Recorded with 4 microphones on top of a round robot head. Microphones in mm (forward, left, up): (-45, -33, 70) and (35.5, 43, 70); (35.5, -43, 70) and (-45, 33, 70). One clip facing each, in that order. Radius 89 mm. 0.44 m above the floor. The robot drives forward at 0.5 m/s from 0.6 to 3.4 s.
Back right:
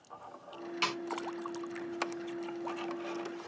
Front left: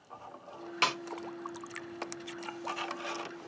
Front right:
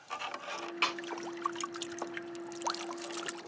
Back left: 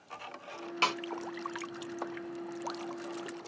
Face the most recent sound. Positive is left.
turn(degrees=140)